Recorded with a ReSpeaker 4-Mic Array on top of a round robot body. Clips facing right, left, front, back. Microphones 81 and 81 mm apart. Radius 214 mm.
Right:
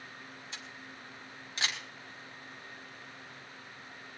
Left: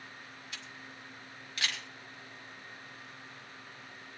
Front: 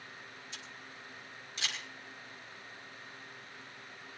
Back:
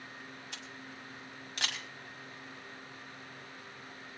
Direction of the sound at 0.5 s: 155° right.